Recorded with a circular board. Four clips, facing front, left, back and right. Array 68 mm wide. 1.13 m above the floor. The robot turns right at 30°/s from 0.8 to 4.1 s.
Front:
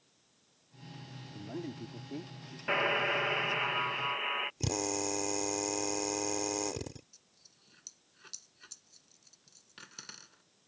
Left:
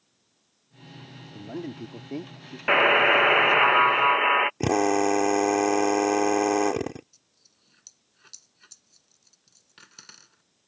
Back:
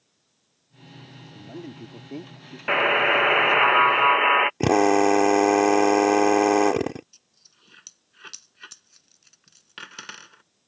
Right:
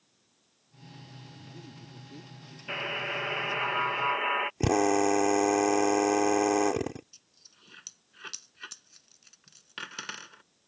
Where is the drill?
175° left.